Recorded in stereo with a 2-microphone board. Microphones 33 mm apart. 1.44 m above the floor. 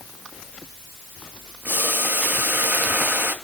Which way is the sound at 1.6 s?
85° right.